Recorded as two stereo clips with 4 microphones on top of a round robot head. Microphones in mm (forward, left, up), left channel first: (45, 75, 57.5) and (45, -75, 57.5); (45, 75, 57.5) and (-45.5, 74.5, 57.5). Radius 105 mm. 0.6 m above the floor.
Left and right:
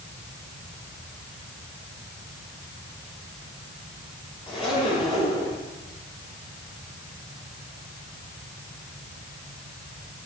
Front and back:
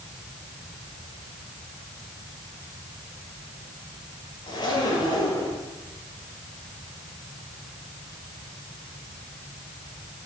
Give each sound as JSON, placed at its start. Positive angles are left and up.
{"t": 4.5, "sound": "a zipper", "azimuth_deg": 35, "distance_m": 8.5}